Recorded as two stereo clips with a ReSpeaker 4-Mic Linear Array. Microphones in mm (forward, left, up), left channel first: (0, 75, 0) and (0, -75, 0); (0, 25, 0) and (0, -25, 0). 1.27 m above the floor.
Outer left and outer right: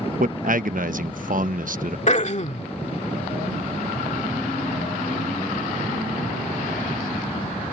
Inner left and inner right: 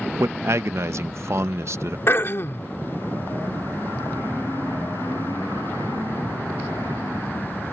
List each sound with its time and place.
0.2 s a man speaking: 65° right (ahead or behind)
2.1 s throat clearing: 50° left (ahead or behind)